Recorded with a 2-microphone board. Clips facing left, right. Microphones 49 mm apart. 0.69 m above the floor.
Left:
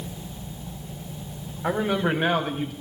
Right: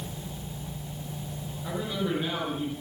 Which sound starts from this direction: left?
A man speaking, at 1.6 s.